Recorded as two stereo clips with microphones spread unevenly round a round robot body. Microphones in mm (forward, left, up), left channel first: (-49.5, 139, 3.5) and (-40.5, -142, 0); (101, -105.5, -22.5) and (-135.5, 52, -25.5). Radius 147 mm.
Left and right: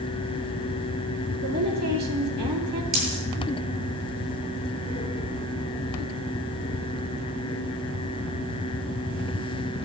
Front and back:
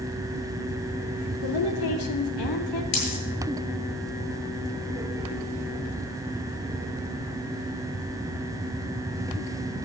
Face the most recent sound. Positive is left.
turn(degrees=-20)